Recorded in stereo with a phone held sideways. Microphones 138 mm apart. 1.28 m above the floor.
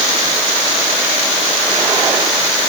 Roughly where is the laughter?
I don't hear laughter.